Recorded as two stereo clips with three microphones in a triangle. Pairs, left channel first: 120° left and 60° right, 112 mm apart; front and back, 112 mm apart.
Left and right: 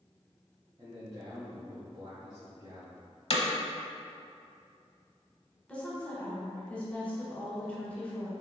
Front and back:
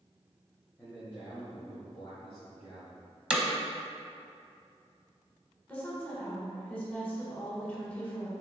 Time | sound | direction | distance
0.8 | a man speaking | 75° right | 1.5 m
3.3 | hammering | 95° left | 0.7 m
5.7 | a woman speaking | 60° left | 1.2 m